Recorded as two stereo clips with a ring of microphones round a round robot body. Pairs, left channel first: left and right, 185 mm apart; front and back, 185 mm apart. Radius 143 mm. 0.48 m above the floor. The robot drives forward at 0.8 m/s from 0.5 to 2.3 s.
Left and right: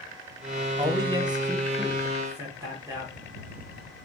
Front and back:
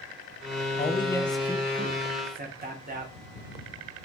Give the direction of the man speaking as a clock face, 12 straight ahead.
1 o'clock.